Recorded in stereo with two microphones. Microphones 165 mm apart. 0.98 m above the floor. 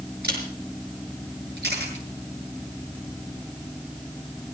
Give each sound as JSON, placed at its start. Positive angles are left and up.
{"t": 0.2, "sound": "a camera shutter", "side_deg": -75, "distance_m": 5.0}
{"t": 1.6, "sound": "a camera shutter", "side_deg": -85, "distance_m": 6.5}